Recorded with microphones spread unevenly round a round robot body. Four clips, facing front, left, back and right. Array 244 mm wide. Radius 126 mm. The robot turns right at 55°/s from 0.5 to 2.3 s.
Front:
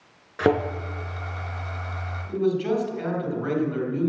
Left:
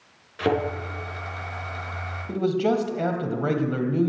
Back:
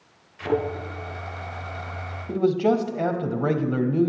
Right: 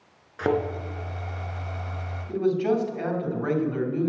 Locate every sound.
0.4 s a thud: 5° left, 4 m; by 0.6 s 15° left, 4 m
2.3 s a man speaking: 145° left, 2.5 m